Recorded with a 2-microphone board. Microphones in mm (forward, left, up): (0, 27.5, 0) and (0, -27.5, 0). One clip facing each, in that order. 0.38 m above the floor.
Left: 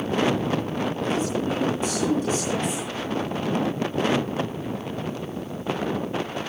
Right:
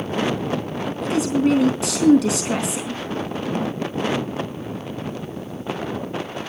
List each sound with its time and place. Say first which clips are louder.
1.0 s a woman speaking: right 9 dB; 75° right (ahead or behind), 3.5 m